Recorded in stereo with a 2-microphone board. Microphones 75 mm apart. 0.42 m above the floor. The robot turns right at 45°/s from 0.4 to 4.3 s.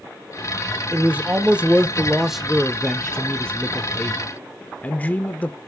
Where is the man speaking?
20° right (ahead or behind), 0.8 m; by 5.6 s 20° left (ahead or behind), 0.8 m.